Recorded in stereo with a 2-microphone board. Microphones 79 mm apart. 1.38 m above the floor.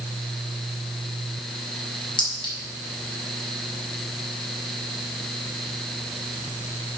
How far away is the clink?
About 4.5 m.